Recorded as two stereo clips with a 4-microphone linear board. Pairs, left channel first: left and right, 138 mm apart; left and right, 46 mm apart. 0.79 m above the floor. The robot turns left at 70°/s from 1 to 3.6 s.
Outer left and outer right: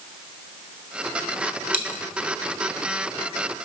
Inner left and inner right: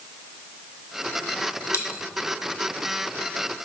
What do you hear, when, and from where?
1.7 s a dropped coin: 80° left, 1.2 m; by 2.0 s 65° left (ahead or behind), 1.2 m